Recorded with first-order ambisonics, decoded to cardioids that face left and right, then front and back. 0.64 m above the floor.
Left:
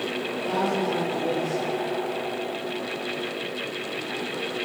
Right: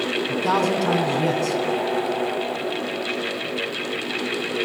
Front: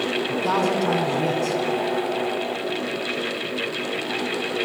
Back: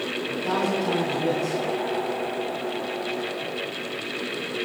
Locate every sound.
0.3 s a man speaking: 60° right, 4.5 m